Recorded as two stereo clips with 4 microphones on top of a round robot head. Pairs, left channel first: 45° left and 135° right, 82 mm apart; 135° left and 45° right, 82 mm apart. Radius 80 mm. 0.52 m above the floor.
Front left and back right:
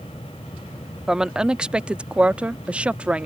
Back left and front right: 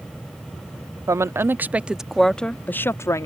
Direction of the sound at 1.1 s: 60° right.